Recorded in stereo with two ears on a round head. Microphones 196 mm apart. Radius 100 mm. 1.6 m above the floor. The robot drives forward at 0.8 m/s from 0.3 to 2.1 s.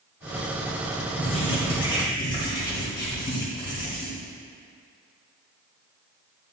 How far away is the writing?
About 1.8 m.